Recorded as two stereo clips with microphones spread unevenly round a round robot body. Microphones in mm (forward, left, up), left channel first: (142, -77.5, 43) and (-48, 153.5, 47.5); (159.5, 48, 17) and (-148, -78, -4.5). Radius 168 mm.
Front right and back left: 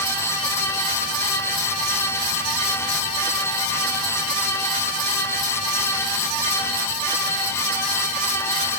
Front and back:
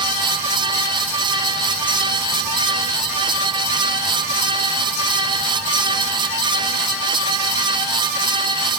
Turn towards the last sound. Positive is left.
No sound to turn to.